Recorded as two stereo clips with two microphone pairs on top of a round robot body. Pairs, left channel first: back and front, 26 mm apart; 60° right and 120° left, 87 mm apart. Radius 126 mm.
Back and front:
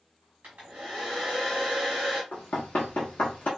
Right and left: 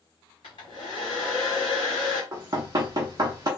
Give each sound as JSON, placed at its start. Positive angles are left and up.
{"t": 0.4, "sound": "a hair dryer", "azimuth_deg": -25, "distance_m": 1.3}
{"t": 2.3, "sound": "knocking", "azimuth_deg": 165, "distance_m": 0.5}